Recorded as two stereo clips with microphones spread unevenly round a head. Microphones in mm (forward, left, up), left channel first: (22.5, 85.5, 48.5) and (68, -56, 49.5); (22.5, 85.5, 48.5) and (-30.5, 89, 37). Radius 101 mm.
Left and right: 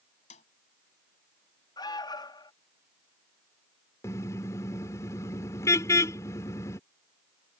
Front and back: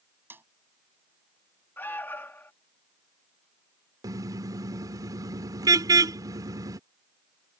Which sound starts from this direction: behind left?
A snare drum, at 0.3 s.